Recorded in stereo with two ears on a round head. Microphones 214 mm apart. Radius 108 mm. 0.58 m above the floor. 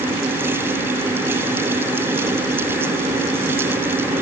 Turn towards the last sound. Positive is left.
No sound to turn to.